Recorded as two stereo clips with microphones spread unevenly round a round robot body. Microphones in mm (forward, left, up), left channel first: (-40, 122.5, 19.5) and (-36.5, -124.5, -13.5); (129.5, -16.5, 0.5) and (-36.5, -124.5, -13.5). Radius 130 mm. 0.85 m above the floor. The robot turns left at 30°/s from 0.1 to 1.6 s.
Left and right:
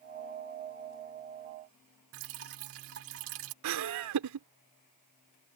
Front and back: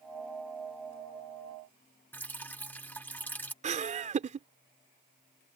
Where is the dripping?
45° right.